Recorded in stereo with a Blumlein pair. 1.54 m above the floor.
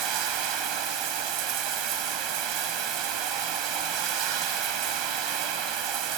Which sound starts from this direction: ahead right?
Running water, at 0.0 s.